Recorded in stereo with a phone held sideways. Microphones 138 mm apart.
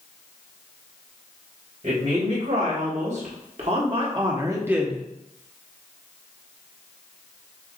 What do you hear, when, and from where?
1.8 s a woman speaking: 70° right (ahead or behind), 2.5 m; by 5.0 s 5° left (ahead or behind), 0.9 m